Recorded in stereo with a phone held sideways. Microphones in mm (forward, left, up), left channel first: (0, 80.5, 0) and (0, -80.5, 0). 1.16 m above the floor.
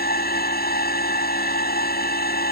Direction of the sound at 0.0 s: 80° left.